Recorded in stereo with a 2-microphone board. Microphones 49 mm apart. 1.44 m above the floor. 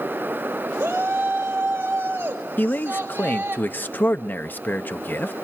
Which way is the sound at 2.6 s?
40° left (ahead or behind).